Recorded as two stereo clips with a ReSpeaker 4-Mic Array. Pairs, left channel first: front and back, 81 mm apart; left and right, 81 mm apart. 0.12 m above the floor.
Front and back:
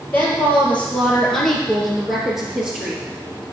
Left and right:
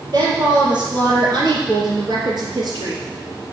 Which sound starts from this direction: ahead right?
A woman speaking, at 0.1 s.